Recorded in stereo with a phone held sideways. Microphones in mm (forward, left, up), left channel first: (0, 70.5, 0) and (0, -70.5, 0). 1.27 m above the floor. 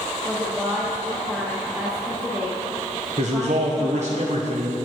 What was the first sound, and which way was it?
A woman speaking, centre (ahead or behind).